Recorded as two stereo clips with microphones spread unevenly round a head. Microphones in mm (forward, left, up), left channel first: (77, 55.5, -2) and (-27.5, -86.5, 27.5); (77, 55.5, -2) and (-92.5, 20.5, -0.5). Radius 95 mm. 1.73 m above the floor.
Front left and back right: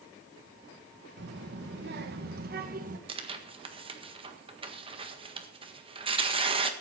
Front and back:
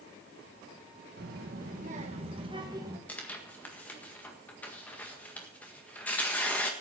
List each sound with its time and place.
1.2 s a child speaking: 140° right, 1.4 m; by 3.0 s 95° right, 1.5 m
3.1 s tearing paper: 70° right, 1.6 m